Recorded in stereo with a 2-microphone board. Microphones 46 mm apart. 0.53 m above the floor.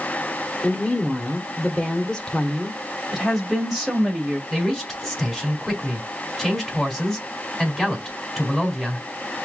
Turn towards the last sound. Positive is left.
turn(degrees=0)  # may be behind; listen again after turning